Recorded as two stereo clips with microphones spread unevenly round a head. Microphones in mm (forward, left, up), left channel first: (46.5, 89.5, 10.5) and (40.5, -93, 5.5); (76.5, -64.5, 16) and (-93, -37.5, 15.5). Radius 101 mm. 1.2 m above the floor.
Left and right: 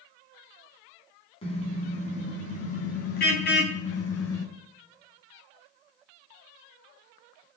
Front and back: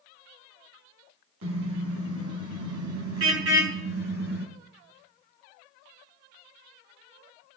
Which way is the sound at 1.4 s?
155° left.